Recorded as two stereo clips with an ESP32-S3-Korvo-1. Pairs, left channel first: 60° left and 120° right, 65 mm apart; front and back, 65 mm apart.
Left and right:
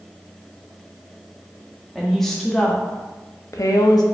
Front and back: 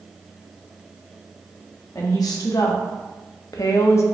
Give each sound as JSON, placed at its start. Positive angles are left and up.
{"t": 1.9, "sound": "a woman speaking", "azimuth_deg": -30, "distance_m": 1.0}